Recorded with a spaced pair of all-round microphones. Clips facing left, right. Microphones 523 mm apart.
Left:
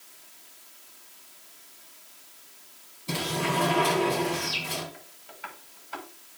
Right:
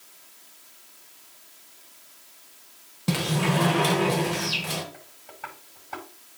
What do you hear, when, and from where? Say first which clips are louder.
3.1 s a sliding door: right 4 dB; 80° right, 2 m
4.9 s tapping: right 2 dB; 65° right (ahead or behind), 5.5 m